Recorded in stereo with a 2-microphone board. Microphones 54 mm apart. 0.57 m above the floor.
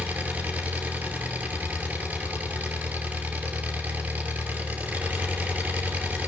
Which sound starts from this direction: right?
An engine running, at 0.0 s.